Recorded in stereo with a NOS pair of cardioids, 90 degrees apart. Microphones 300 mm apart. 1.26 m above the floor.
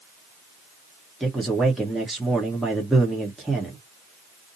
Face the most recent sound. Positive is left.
turn(degrees=0)